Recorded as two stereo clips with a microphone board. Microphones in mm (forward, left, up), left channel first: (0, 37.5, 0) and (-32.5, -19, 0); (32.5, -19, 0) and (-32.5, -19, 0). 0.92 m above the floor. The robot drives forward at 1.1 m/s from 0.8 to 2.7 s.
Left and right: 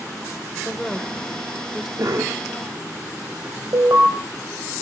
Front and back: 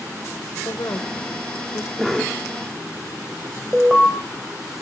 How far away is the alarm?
About 4.5 m.